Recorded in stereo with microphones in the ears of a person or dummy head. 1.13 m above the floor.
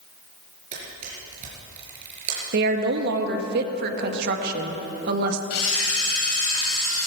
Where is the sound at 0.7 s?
40° right (ahead or behind), 4.5 m.